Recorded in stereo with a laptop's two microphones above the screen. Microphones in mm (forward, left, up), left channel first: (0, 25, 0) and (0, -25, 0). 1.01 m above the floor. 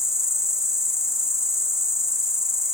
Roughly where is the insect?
Centre.